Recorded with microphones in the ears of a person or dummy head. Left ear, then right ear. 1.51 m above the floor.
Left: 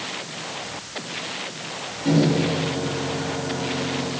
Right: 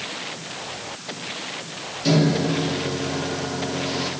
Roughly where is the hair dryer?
I don't hear a hair dryer.